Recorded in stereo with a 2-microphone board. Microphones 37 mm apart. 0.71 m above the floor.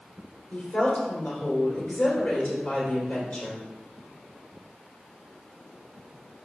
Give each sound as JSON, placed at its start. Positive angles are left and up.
{"t": 0.5, "sound": "a woman speaking", "side_deg": 35, "distance_m": 3.0}